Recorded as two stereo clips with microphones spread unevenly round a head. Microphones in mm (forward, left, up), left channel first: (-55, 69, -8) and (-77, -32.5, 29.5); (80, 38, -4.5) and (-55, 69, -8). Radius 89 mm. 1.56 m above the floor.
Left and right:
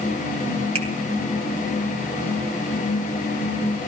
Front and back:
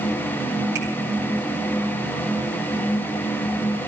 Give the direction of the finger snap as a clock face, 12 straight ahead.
4 o'clock.